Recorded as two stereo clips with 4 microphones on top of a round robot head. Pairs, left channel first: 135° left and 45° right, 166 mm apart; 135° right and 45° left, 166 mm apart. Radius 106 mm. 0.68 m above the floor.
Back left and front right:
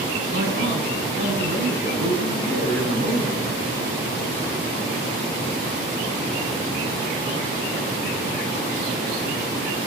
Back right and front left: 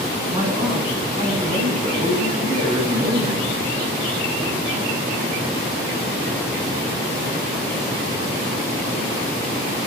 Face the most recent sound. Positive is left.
turn(degrees=0)